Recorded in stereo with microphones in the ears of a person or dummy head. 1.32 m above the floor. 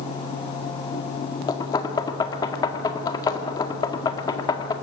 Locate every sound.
1.5 s knocking: 20° left (ahead or behind), 1.6 m